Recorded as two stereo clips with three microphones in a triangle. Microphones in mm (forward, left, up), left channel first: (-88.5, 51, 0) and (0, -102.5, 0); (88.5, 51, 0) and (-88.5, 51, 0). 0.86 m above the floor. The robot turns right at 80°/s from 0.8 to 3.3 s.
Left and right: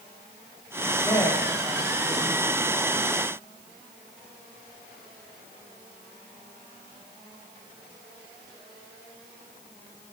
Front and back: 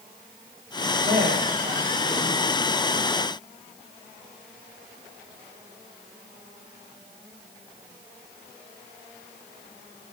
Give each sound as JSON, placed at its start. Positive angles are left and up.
{"t": 1.0, "sound": "a man speaking", "azimuth_deg": 175, "distance_m": 4.0}